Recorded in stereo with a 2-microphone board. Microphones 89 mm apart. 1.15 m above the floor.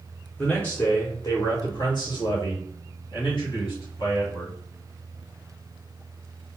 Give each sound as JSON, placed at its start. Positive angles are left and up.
{"t": 0.4, "sound": "a man speaking", "side_deg": 10, "distance_m": 0.7}